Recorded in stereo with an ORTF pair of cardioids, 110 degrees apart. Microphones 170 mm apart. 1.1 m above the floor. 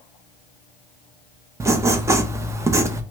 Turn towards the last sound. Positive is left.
turn(degrees=-20)